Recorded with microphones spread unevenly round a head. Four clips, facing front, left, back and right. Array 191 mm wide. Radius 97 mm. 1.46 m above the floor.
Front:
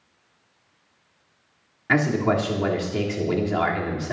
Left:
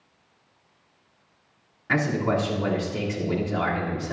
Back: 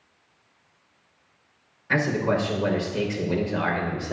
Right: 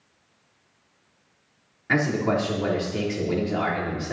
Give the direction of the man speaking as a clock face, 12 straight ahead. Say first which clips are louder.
Right 1 dB, front 2 dB; 12 o'clock.